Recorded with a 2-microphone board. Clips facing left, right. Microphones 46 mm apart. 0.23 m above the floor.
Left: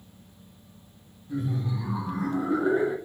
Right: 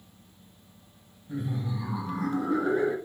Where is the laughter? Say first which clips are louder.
Left 3 dB; 25° right (ahead or behind), 1.0 m; by 2.9 s 5° left (ahead or behind), 2.5 m.